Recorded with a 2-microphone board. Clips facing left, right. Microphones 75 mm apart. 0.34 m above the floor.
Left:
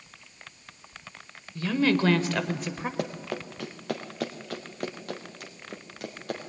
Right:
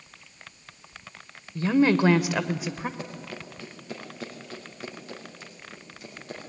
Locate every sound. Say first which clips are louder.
1.6 s a woman speaking: right 4 dB; 30° right (ahead or behind), 1.2 m; by 2.9 s centre (ahead or behind), 1.2 m
3.0 s running footsteps: left 6 dB; 70° left (ahead or behind), 2.5 m; by 6.4 s 60° left (ahead or behind), 5 m